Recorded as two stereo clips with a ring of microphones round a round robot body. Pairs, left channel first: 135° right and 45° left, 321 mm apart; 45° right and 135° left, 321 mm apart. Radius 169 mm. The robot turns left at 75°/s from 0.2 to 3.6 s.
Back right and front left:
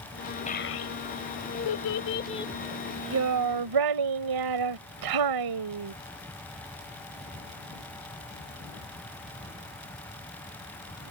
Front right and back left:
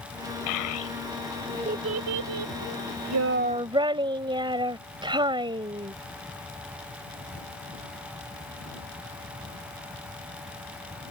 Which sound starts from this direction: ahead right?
A child speaking, at 0.5 s.